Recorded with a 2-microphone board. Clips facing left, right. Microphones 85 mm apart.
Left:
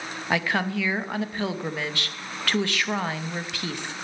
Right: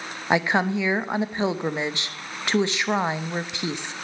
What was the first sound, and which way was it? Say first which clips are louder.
A woman speaking: right 4 dB; 20° right (ahead or behind).